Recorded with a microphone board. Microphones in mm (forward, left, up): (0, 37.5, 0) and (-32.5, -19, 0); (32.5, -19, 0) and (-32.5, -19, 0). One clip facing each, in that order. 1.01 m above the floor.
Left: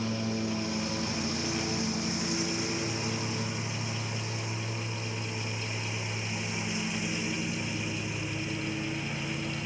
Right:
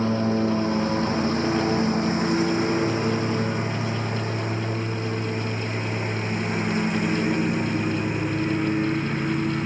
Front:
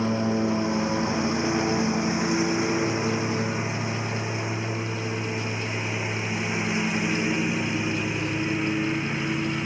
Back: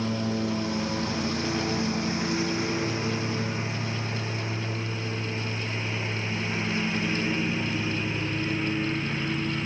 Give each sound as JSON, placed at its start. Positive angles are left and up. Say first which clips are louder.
{"t": 0.0, "sound": "a lawn mower", "louder": "right 10 dB, front 4 dB", "azimuth_deg": -70}